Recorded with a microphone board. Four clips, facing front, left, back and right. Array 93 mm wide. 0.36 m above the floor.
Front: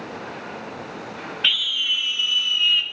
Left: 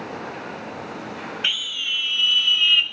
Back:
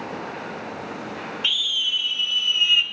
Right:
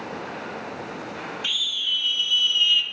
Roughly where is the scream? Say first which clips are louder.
Left 2 dB, front 5 dB; ahead left.